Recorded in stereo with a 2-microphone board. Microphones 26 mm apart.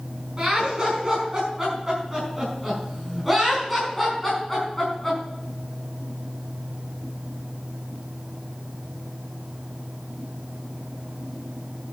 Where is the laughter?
20° right (ahead or behind), 5.5 m; by 5.2 s 10° left (ahead or behind), 5.5 m.